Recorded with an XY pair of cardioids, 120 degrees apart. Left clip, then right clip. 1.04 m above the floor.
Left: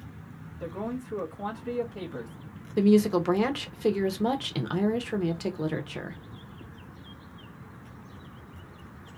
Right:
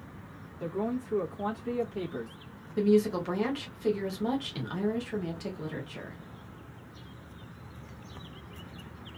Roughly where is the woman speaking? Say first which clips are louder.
Left 3 dB; ahead left.